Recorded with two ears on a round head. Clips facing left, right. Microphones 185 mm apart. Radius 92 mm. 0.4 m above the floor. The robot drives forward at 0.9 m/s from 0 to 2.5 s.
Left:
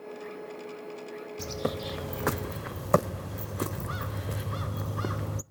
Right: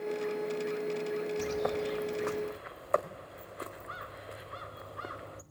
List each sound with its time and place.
1.4 s a bird: 30° left (ahead or behind), 0.9 m; by 5.4 s 55° left (ahead or behind), 0.5 m